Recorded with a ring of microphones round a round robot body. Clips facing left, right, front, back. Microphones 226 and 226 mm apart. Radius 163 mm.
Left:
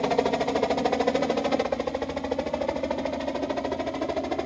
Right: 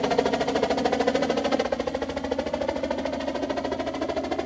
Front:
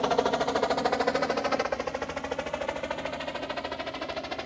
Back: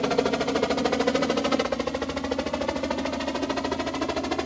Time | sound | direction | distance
0.0 | a helicopter | 170° right | ?